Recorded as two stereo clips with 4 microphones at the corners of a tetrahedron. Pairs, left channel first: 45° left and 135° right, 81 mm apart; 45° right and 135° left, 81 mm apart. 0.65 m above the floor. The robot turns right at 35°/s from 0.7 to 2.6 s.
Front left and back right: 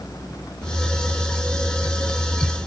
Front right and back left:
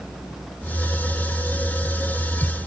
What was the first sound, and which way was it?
Only background noise.